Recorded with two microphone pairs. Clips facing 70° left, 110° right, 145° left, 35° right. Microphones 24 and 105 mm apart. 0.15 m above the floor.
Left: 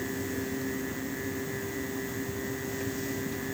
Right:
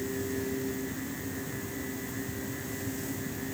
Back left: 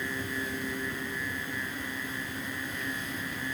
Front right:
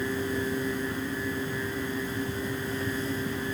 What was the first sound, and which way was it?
Only background noise.